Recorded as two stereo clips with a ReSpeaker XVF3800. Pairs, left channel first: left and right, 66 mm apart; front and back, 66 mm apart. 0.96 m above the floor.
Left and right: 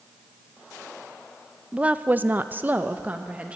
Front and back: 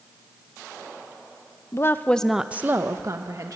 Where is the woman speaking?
20° right, 0.8 m; by 3.5 s 155° right, 1.3 m.